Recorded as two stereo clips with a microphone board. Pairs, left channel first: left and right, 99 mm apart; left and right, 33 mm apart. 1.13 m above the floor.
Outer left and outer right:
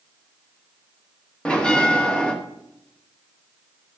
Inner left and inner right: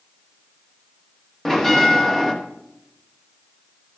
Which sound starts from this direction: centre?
A bell, at 1.4 s.